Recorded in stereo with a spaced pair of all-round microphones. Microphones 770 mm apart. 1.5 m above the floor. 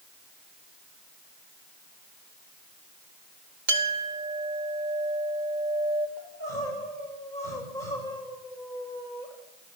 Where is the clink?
75° right (ahead or behind), 2 m.